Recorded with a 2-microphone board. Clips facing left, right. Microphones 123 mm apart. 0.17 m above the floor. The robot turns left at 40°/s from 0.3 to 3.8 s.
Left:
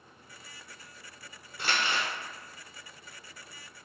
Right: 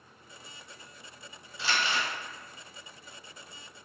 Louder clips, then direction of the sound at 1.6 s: Even; 60° left (ahead or behind).